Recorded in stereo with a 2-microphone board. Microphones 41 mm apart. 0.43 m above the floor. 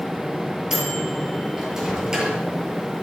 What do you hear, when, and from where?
0.7 s a microwave: 10° right (ahead or behind), 6 m